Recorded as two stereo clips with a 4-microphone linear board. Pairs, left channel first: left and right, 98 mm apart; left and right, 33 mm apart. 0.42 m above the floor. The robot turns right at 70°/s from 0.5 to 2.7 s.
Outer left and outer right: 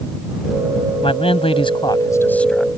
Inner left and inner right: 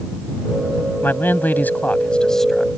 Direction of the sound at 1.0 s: 70° left.